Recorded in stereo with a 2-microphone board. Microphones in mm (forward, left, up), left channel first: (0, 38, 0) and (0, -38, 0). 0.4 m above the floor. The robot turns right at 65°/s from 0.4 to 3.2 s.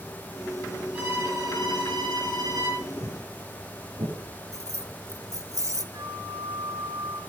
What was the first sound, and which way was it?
A violin, 160° right.